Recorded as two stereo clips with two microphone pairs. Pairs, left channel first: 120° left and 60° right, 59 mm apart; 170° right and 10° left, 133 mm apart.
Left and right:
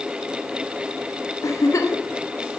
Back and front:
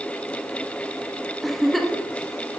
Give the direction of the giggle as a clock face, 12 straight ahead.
9 o'clock.